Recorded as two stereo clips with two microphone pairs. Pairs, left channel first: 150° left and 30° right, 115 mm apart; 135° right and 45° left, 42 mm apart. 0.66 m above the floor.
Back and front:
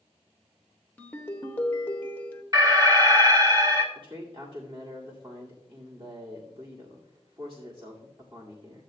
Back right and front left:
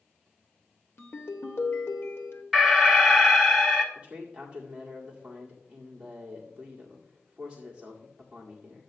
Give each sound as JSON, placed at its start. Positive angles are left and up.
{"t": 1.0, "sound": "a ringtone", "azimuth_deg": -135, "distance_m": 1.0}
{"t": 2.5, "sound": "an alarm", "azimuth_deg": -45, "distance_m": 1.4}
{"t": 4.0, "sound": "a man speaking", "azimuth_deg": -5, "distance_m": 2.0}